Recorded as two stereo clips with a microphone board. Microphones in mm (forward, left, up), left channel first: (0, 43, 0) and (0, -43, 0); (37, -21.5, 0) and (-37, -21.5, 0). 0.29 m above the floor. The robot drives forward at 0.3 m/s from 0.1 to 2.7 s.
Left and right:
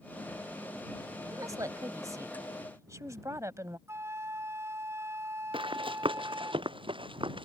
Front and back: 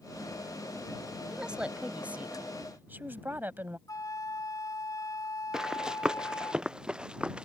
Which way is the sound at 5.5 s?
100° right.